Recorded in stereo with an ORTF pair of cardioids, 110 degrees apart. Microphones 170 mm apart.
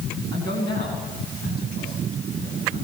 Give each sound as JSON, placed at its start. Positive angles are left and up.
{"t": 0.3, "sound": "a man speaking", "azimuth_deg": 70, "distance_m": 9.0}